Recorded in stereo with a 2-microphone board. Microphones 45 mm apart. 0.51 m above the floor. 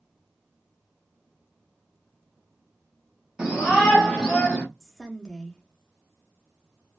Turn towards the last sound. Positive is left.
turn(degrees=10)  # may be behind; listen again after turning